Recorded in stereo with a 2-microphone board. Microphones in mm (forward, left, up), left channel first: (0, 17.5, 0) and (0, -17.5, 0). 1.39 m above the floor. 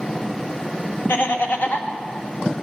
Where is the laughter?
70° left (ahead or behind), 1.3 m.